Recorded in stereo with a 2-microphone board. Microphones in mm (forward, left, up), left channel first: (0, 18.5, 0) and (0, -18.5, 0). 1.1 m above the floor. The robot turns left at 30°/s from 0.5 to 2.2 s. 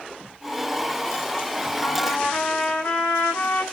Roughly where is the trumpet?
Left.